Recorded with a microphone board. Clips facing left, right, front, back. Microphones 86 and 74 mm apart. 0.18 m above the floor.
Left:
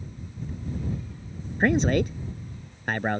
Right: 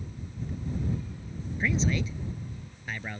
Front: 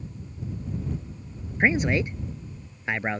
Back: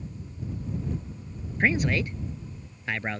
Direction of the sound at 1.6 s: 65° left.